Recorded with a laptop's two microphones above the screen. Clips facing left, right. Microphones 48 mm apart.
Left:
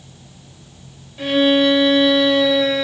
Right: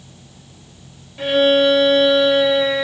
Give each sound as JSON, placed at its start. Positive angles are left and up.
{"t": 1.2, "sound": "a violin", "side_deg": -10, "distance_m": 1.5}